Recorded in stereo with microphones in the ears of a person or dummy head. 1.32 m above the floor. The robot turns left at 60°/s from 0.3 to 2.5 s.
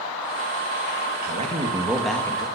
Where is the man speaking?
130° right, 2 m; by 2.5 s 155° left, 2 m.